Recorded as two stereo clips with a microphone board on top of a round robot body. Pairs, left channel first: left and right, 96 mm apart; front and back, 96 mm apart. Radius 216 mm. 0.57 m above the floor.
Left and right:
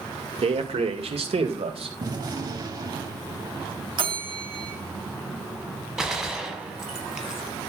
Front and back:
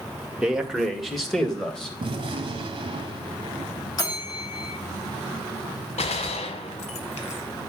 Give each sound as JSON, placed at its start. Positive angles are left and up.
{"t": 0.4, "sound": "a man speaking", "azimuth_deg": -100, "distance_m": 2.0}
{"t": 2.0, "sound": "a gunshot", "azimuth_deg": -140, "distance_m": 1.8}
{"t": 4.0, "sound": "a bell", "azimuth_deg": -50, "distance_m": 3.0}
{"t": 6.0, "sound": "a gunshot", "azimuth_deg": -5, "distance_m": 1.3}